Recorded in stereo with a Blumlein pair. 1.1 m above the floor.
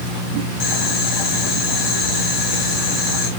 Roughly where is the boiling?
Ahead left.